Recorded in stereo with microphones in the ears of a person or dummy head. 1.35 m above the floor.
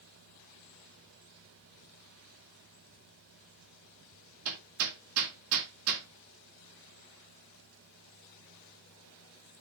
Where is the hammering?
80° right, 2.5 m.